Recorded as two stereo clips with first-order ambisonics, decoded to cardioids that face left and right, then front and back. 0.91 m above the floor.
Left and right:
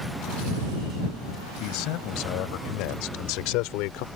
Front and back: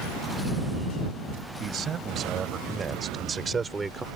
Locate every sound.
1.6 s a man speaking: 120° left; by 4.1 s 100° left